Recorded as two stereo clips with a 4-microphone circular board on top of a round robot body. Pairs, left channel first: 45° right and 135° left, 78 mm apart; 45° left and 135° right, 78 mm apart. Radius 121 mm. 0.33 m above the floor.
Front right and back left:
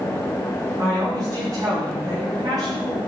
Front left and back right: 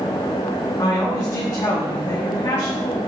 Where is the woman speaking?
95° left, 5.5 m; by 3.0 s 105° left, 8.5 m.